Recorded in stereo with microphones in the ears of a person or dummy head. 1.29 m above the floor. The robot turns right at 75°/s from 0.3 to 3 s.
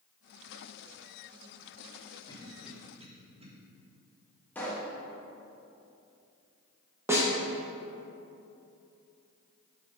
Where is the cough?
30° left (ahead or behind), 1.6 m; by 3.5 s 20° right (ahead or behind), 1.6 m.